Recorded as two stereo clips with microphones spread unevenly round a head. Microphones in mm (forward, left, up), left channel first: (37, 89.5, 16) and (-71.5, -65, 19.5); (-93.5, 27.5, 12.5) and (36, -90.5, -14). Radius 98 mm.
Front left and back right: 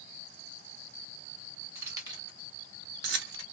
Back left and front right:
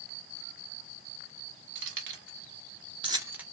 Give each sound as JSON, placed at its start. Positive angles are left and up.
{"t": 1.8, "sound": "keys jangling", "azimuth_deg": -45, "distance_m": 1.2}